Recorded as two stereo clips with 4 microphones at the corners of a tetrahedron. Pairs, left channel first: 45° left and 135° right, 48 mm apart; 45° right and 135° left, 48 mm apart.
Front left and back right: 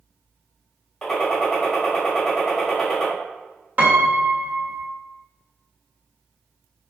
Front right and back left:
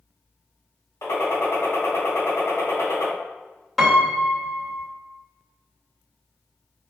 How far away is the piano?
About 0.8 m.